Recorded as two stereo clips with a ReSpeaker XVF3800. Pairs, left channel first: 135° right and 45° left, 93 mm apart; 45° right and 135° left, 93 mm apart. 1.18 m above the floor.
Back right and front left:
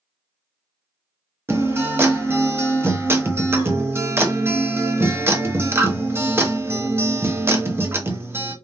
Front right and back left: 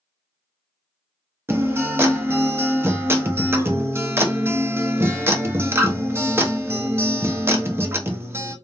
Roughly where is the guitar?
Left.